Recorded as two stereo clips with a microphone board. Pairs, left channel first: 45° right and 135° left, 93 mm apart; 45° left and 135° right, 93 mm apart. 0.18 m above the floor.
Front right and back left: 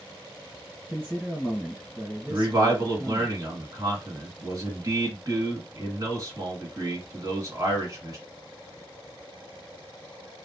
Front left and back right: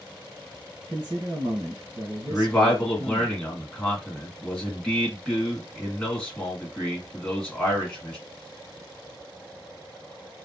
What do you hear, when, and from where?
0.9 s a man speaking: 150° right, 2 m
2.3 s a man speaking: 120° left, 1.7 m